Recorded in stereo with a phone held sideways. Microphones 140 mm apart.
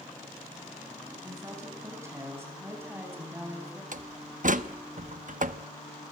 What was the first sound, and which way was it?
A woman speaking, 20° right (ahead or behind).